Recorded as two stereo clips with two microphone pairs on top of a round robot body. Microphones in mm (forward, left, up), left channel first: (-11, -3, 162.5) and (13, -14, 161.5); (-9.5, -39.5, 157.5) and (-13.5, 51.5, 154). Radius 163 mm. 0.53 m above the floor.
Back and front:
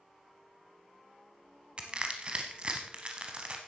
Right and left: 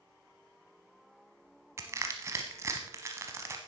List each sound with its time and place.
1.8 s crushing: 30° left, 0.6 m